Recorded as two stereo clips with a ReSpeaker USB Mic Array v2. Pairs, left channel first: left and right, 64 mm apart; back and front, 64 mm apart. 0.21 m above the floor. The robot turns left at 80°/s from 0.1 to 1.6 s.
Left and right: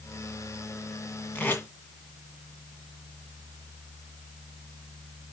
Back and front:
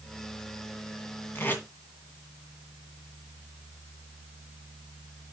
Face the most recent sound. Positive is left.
turn(degrees=130)